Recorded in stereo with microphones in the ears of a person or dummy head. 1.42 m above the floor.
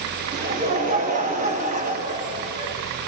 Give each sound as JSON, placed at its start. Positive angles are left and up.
{"t": 0.3, "sound": "laughter", "side_deg": -40, "distance_m": 2.5}